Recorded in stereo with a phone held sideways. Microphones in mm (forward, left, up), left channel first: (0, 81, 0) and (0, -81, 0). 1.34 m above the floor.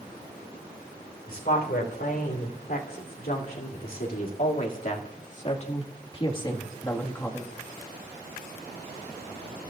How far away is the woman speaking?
About 4 m.